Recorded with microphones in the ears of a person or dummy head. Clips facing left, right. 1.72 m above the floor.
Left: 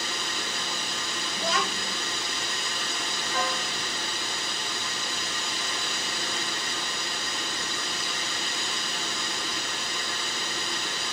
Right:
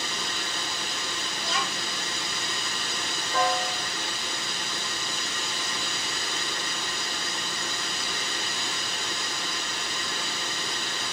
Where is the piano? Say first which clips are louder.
Right 6 dB; 30° right (ahead or behind), 2.5 m.